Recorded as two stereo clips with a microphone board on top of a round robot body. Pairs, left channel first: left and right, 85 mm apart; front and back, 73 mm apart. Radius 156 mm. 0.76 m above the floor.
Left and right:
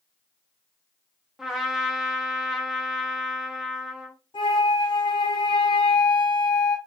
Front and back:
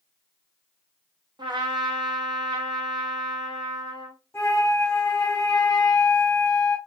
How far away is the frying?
No frying in this recording.